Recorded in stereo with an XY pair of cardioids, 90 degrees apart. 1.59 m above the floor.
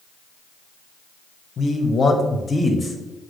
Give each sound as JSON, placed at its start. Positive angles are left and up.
{"t": 1.6, "sound": "a man speaking", "azimuth_deg": 55, "distance_m": 0.9}